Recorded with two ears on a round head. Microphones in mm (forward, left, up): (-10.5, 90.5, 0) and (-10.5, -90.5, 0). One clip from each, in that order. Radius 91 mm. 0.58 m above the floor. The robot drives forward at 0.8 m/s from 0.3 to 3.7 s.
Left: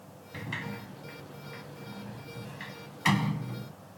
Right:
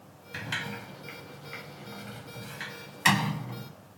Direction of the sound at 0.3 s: 55° right (ahead or behind).